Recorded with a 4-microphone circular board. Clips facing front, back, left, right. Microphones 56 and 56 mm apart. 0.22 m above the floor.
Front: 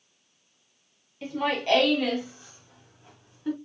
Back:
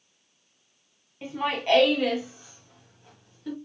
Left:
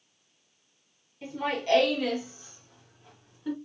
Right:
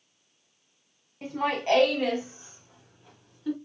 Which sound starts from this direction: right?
Laughter, at 1.2 s.